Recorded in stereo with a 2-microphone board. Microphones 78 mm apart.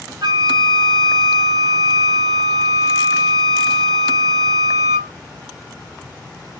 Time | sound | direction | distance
0.2 | a flute | 60° right (ahead or behind) | 0.5 m